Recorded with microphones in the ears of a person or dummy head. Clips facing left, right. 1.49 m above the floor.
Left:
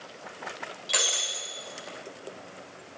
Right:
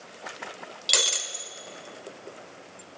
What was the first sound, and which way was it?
Breaking glass, 50° right (ahead or behind).